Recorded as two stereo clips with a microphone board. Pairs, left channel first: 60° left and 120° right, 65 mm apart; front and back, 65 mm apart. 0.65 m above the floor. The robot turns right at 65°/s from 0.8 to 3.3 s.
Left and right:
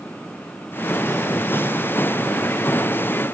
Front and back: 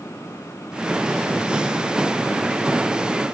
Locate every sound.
Only background noise.